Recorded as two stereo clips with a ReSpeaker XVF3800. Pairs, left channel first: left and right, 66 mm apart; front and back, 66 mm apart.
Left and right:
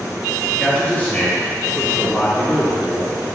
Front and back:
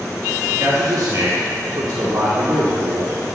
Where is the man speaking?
150° left, 1.2 m.